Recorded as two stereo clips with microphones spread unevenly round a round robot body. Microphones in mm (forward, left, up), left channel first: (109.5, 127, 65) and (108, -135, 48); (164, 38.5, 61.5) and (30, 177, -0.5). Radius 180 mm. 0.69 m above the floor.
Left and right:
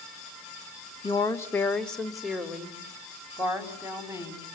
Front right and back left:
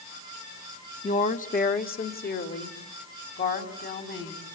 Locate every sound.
1.0 s a woman speaking: 15° left, 1.6 m; by 4.5 s 10° right, 6 m